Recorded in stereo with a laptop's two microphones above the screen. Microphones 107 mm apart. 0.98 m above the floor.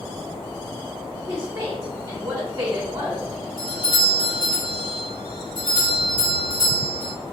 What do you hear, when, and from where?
1.3 s a woman speaking: 30° right (ahead or behind), 1.0 m
3.6 s a doorbell: 50° left (ahead or behind), 1.7 m